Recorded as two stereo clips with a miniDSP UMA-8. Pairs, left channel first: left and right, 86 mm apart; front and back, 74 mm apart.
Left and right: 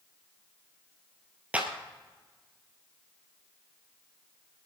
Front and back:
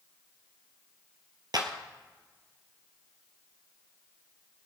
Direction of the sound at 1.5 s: 160° right.